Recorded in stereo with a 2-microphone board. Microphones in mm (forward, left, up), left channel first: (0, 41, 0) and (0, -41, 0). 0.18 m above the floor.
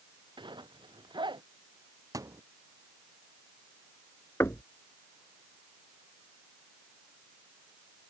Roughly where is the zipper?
Right.